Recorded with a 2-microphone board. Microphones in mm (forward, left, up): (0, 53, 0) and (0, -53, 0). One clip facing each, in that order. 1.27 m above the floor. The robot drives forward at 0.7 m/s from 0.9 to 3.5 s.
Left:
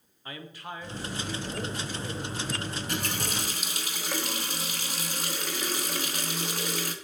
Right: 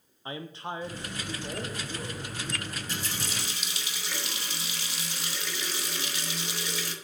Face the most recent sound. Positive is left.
turn(degrees=45)  # may be behind; listen again after turning